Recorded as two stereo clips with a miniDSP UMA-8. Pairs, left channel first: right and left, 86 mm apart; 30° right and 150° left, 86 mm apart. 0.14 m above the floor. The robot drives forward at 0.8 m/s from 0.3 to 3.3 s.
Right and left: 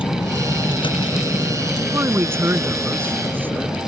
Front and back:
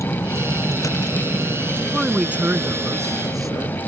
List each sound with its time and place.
0.0 s a vehicle: 80° right; by 3.9 s 70° right
1.8 s a man speaking: 55° left; by 3.8 s 145° left